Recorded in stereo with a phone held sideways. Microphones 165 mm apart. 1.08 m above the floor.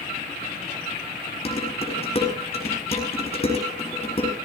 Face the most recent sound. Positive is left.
turn(degrees=40)  # may be behind; listen again after turning